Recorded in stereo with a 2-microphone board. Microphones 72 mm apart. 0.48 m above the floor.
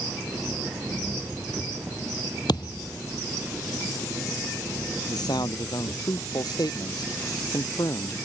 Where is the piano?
No piano in this recording.